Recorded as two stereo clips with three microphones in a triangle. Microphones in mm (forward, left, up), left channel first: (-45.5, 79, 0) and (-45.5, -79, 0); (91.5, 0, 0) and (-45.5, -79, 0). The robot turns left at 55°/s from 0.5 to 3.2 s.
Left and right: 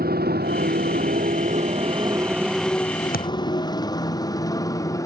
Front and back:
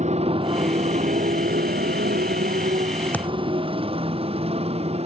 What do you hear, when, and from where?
0.0 s a motorcycle: 105° right; by 5.1 s 160° left
3.1 s a thud: 110° left